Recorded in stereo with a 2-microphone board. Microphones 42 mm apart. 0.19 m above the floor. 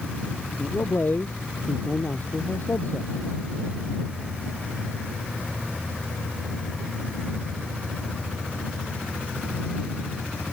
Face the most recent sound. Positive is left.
turn(degrees=50)  # may be behind; listen again after turning